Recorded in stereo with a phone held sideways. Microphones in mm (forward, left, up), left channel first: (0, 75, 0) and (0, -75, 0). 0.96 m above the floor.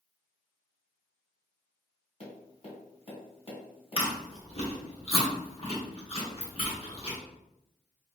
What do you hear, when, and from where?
2.2 s tapping: 40° left (ahead or behind), 1.5 m
4.0 s chewing: 40° left (ahead or behind), 1.3 m